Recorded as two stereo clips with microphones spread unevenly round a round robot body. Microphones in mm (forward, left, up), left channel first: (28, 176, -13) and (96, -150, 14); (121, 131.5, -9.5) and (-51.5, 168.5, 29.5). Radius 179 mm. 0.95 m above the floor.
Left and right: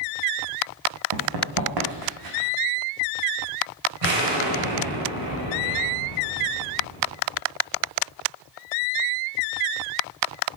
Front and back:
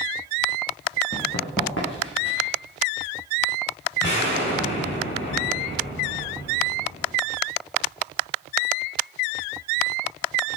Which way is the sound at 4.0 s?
55° right.